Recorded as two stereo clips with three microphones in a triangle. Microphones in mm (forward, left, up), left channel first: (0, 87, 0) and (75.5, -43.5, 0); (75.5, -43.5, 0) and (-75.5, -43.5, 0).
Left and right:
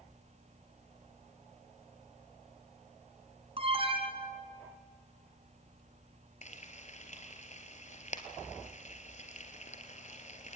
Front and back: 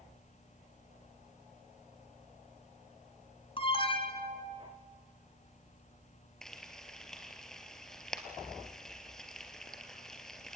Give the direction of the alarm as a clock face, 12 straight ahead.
1 o'clock.